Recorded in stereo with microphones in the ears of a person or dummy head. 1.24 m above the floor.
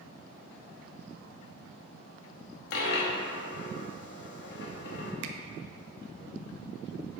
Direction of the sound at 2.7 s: 60° left (ahead or behind).